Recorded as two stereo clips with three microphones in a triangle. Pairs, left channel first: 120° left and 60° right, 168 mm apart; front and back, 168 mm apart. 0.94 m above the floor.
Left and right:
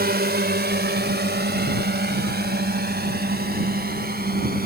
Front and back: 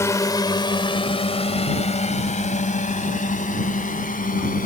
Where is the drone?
75° right; by 4.7 s 35° right.